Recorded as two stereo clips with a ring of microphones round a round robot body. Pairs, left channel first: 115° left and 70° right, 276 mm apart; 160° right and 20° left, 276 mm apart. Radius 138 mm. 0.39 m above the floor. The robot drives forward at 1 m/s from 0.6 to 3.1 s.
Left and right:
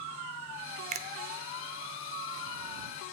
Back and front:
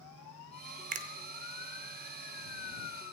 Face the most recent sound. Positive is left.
turn(degrees=-175)